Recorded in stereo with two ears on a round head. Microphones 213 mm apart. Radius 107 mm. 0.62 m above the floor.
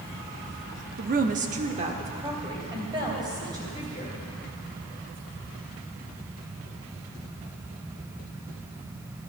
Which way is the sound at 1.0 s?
35° right (ahead or behind).